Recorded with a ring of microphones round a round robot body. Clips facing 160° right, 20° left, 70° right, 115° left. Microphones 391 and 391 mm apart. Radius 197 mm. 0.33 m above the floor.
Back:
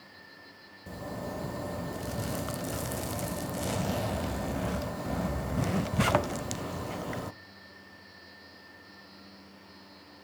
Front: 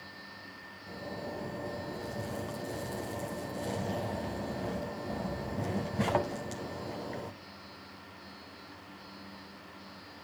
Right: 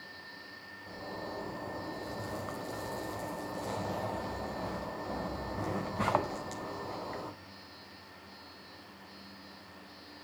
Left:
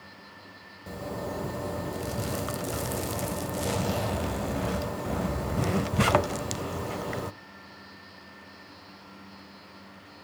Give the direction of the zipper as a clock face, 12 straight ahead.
7 o'clock.